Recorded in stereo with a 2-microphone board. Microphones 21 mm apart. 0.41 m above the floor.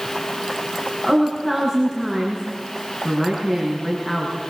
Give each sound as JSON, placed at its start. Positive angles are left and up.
{"t": 1.0, "sound": "a woman speaking", "side_deg": 15, "distance_m": 6.0}